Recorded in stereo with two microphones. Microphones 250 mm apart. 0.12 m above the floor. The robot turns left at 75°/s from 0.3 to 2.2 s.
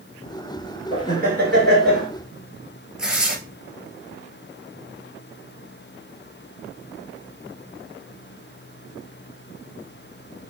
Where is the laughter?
35° right, 1.6 m; by 2.1 s 120° right, 1.6 m.